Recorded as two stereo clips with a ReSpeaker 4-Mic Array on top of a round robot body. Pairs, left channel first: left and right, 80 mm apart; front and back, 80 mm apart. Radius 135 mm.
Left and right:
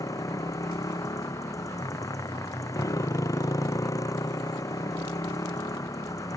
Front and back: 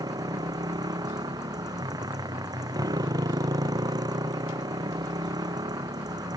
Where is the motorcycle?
140° left.